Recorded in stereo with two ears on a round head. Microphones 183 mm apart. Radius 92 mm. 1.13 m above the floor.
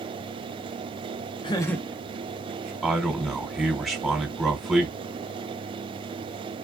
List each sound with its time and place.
1.4 s laughter: 25° left (ahead or behind), 0.5 m; by 2.7 s 45° right (ahead or behind), 0.7 m
2.8 s a man speaking: centre (ahead or behind), 1.2 m